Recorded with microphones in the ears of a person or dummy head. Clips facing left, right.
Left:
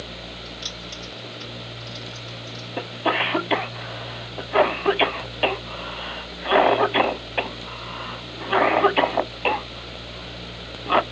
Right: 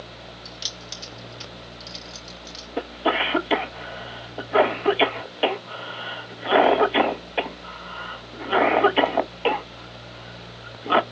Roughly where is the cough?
Centre.